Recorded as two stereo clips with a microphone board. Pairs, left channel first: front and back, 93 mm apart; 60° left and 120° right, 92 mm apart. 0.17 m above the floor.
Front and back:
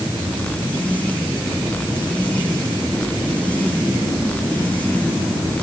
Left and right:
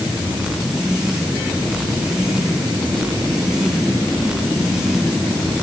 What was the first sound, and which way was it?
Only background noise.